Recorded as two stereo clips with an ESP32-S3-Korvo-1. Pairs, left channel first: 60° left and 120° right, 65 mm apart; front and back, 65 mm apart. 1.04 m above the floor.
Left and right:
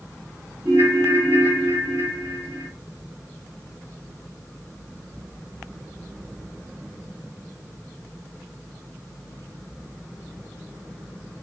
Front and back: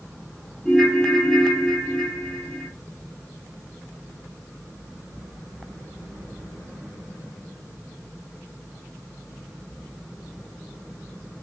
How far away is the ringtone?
About 0.8 m.